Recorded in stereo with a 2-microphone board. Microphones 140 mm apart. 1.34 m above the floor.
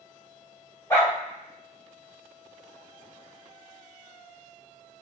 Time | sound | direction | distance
0.9 | a dog barking | 20° left (ahead or behind) | 1.9 m